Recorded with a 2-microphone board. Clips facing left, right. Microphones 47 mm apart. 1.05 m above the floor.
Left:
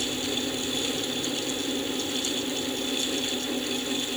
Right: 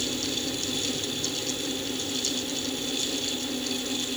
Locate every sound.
Only background noise.